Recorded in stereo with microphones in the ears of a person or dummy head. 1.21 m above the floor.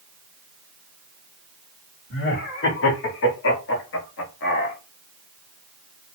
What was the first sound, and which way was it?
Laughter, 55° left (ahead or behind).